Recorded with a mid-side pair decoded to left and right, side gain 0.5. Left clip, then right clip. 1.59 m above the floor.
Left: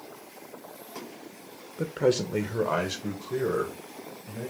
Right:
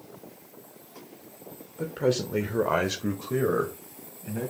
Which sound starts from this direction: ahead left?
A man speaking, at 1.8 s.